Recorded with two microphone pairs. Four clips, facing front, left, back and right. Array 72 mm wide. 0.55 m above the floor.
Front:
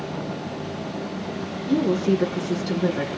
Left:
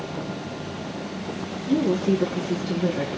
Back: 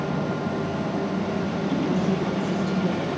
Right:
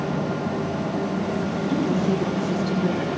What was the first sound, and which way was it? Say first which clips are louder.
A woman speaking: left 3 dB, front 6 dB; 25° left.